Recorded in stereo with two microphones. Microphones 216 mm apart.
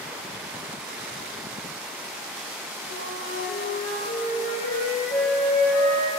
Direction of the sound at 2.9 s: 70° left (ahead or behind).